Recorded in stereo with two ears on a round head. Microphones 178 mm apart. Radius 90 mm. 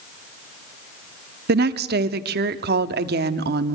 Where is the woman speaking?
55° right (ahead or behind), 0.9 m.